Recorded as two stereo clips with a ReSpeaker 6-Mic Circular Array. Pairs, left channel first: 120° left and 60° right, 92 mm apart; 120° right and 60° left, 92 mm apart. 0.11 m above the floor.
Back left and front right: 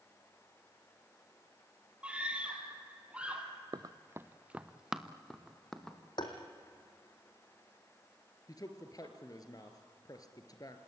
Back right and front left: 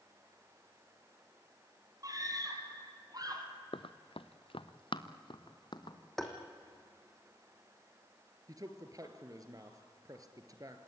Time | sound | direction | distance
2.0 | a scream | 15° left | 3 m
3.7 | running footsteps | 100° right | 0.9 m
6.2 | tapping | 155° left | 3 m
8.5 | a man speaking | 95° left | 2 m